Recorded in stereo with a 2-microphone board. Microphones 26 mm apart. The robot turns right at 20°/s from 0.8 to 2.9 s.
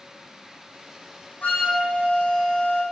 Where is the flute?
85° left, 3.5 m; by 2.8 s 65° left (ahead or behind), 3.5 m.